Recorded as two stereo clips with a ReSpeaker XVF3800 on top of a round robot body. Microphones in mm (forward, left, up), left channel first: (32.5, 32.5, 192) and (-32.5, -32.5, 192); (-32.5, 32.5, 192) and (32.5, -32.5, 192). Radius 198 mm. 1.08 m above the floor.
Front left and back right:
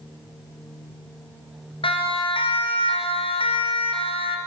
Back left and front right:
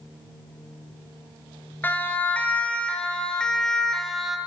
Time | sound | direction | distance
1.8 | a siren | 65° left | 4 m